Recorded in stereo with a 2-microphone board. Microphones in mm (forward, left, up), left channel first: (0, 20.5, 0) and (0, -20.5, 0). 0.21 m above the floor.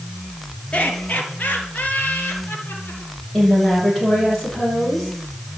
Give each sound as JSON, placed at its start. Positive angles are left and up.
{"t": 0.7, "sound": "laughter", "side_deg": 30, "distance_m": 3.5}
{"t": 3.3, "sound": "a woman speaking", "side_deg": 5, "distance_m": 8.5}